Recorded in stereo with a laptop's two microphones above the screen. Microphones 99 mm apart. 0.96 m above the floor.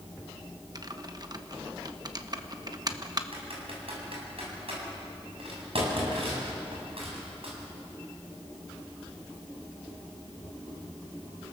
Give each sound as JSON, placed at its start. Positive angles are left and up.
{"t": 0.8, "sound": "typing on a keyboard", "side_deg": -40, "distance_m": 1.0}
{"t": 3.3, "sound": "typing on a keyboard", "side_deg": -65, "distance_m": 7.0}